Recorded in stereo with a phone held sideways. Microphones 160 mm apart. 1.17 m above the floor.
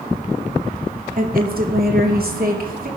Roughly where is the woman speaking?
Right.